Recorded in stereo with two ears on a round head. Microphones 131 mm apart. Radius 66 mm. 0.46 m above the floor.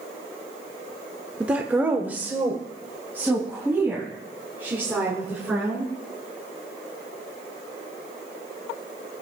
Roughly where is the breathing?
No breathing in this recording.